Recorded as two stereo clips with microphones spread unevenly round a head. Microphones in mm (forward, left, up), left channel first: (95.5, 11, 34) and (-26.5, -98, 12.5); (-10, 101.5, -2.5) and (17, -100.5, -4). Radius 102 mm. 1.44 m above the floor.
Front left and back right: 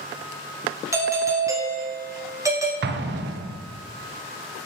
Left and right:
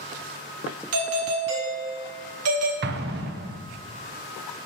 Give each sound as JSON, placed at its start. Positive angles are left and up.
{"t": 0.9, "sound": "a doorbell", "azimuth_deg": -70, "distance_m": 2.0}
{"t": 2.8, "sound": "an explosion", "azimuth_deg": -125, "distance_m": 0.9}